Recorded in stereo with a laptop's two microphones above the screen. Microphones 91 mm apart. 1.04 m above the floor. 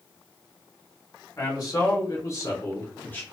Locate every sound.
1.4 s a man speaking: 40° left (ahead or behind), 1.2 m; by 3.2 s 15° left (ahead or behind), 0.7 m